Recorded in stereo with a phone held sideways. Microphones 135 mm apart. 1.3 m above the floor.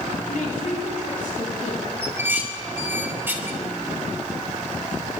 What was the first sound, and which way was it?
A woman speaking, 85° left.